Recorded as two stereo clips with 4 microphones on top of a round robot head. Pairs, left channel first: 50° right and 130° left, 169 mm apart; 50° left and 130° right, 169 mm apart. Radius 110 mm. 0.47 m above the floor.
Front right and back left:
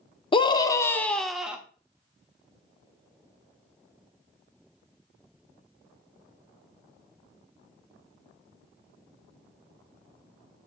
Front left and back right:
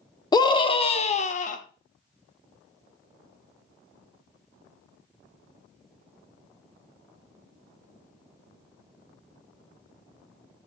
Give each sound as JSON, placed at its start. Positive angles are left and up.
{"t": 0.3, "sound": "a scream", "azimuth_deg": -5, "distance_m": 1.2}